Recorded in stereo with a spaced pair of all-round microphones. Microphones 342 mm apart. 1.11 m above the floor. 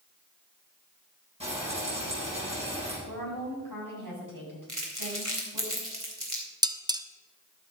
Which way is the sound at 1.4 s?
20° right (ahead or behind).